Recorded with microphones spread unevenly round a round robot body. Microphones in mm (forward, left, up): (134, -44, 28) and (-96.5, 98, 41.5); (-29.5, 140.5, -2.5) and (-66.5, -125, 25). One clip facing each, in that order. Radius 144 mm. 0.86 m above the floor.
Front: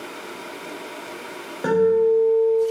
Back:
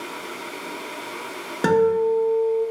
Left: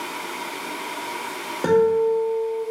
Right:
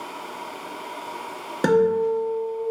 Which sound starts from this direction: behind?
A guitar, at 1.6 s.